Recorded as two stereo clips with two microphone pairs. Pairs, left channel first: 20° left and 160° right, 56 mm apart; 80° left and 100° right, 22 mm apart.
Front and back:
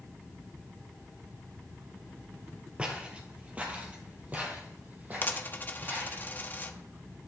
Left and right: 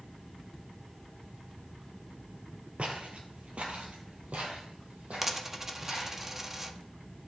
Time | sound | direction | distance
2.8 | footsteps | 95° right | 1.8 m
5.2 | a dropped coin | 25° right | 0.8 m